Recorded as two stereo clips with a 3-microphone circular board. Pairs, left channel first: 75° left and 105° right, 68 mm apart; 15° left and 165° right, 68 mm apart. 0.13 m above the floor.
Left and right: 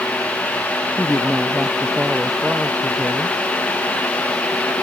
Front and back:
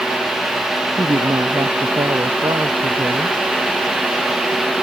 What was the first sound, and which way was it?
A woman speaking, 175° left.